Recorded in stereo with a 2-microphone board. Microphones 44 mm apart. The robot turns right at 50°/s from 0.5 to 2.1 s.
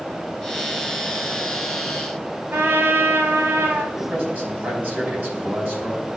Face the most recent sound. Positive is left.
turn(degrees=-40)  # may be behind; listen again after turning